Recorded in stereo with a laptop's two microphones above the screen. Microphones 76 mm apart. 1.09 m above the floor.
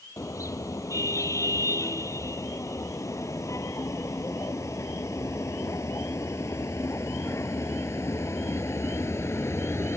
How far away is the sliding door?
No sliding door in this recording.